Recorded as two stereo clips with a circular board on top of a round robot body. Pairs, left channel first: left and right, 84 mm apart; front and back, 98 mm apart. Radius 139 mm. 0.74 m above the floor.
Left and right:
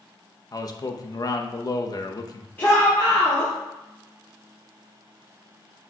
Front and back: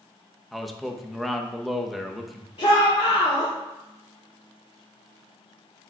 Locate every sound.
0.5 s a man speaking: 90° left, 0.9 m
2.6 s a shout: 25° left, 3 m